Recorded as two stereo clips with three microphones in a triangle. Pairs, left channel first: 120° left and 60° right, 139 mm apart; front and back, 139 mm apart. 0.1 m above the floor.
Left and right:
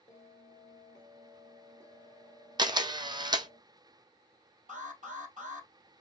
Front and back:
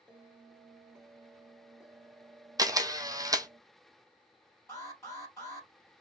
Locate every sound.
0.1 s a bell: 95° left, 1.1 m
2.6 s a camera shutter: 115° right, 0.6 m
4.7 s an alarm: 70° right, 3 m